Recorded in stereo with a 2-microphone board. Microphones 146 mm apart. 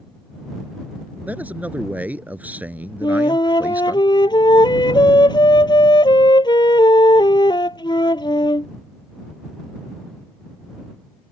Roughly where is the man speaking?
Centre.